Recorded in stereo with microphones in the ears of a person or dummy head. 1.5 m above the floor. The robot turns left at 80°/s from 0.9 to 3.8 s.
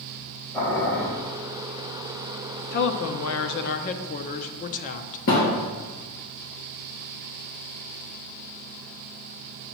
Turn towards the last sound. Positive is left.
turn(degrees=65)  # may be behind; listen again after turning